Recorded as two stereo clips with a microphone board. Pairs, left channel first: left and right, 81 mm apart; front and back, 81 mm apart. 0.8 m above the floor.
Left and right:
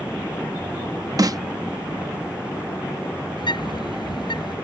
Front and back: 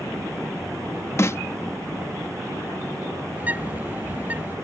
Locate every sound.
1.2 s a snare drum: 55° right
3.4 s a bird: 110° left